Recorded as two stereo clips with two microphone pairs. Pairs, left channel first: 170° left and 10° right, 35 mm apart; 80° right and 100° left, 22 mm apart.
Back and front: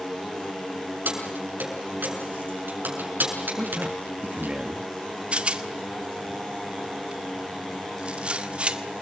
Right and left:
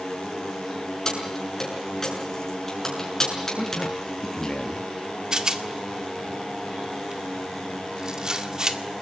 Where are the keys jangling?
15° right, 7 m.